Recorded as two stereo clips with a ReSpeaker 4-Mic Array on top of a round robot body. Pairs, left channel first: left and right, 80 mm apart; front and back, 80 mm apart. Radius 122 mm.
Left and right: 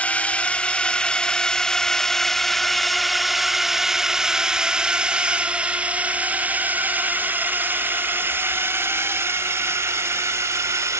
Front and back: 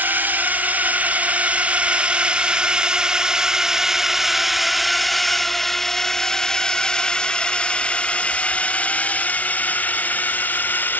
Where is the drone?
145° left; by 11.0 s 55° right.